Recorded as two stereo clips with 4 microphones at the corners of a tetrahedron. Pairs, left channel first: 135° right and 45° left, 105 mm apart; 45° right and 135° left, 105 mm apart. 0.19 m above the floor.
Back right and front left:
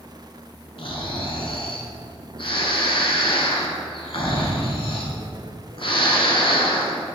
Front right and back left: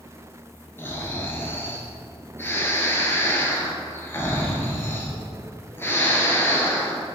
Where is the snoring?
110° right, 1.0 m.